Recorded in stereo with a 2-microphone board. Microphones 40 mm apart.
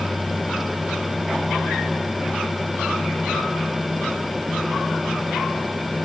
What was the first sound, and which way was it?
Only background noise.